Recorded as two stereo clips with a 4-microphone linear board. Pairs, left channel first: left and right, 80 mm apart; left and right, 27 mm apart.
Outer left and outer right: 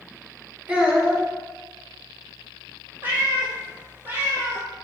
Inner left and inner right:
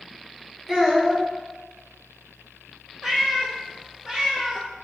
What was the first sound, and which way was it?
A child speaking, 20° right (ahead or behind).